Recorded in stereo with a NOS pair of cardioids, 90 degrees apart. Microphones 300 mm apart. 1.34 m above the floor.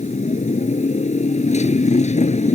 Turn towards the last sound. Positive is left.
turn(degrees=25)